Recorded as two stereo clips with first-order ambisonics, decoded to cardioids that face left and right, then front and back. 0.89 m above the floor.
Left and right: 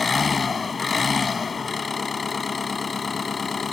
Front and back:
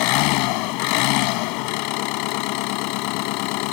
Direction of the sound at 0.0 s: 15° left.